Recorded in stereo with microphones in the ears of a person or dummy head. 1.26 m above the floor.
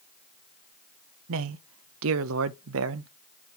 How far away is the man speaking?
About 0.5 m.